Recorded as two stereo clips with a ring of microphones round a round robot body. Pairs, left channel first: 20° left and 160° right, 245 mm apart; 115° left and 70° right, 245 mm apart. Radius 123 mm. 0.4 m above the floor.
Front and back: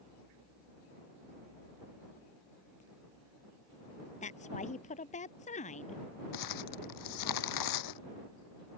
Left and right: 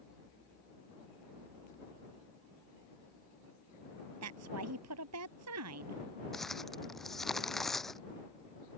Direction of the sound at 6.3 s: 25° left.